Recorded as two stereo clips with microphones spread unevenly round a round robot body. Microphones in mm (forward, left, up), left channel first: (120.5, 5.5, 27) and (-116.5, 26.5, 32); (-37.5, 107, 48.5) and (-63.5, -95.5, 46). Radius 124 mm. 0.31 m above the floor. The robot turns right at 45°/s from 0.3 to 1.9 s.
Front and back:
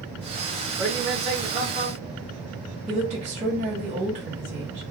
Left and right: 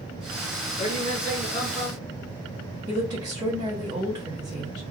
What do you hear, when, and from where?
0.8 s a man speaking: 105° left, 1.7 m; by 2.1 s 155° left, 1.7 m
2.9 s a woman speaking: 150° right, 1.7 m